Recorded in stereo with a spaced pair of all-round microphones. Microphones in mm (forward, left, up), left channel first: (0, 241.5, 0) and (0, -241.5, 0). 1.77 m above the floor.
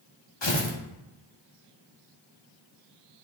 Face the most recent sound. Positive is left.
turn(degrees=60)  # may be behind; listen again after turning